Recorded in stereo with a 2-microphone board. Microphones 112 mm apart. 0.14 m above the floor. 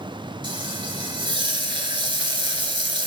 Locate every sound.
0.4 s frying: 45° right (ahead or behind), 2 m